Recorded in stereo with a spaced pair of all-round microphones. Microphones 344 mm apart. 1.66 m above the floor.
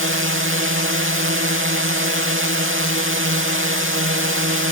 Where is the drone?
35° right (ahead or behind).